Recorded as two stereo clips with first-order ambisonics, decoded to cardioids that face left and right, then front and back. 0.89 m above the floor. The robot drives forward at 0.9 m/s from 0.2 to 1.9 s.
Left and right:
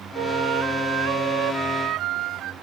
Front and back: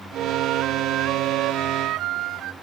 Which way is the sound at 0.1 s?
130° right.